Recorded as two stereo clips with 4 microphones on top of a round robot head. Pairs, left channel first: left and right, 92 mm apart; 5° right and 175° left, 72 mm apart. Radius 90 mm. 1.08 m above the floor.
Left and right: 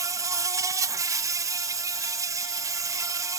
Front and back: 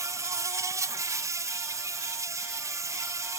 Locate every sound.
0.0 s an insect: 140° right